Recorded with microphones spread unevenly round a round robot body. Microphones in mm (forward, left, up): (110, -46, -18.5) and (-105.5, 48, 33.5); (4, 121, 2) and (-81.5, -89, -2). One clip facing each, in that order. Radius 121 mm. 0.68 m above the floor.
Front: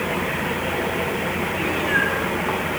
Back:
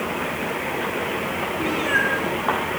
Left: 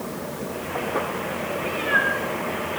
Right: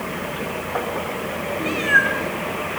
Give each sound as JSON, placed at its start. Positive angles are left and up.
{"t": 1.6, "sound": "a cat meowing", "azimuth_deg": -135, "distance_m": 6.5}